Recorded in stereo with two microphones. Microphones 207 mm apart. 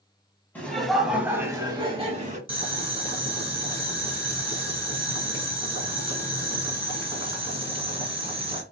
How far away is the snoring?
No snoring in this recording.